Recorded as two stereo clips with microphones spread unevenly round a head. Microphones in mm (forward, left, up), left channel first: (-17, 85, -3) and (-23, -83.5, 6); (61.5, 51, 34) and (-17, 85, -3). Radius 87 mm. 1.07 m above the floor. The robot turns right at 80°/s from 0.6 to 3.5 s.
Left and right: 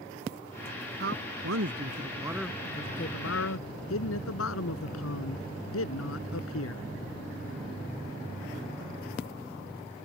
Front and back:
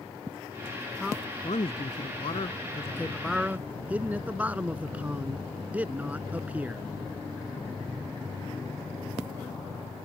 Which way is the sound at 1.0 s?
120° right.